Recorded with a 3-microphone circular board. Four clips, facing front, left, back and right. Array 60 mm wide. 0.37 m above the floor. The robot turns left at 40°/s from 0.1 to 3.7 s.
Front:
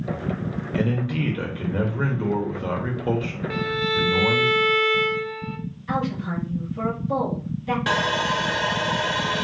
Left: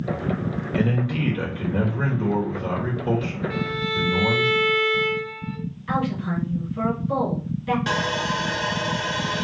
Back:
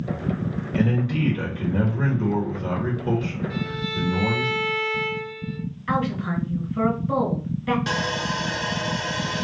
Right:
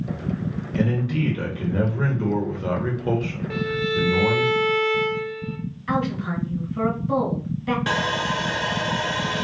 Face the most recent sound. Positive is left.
turn(degrees=-15)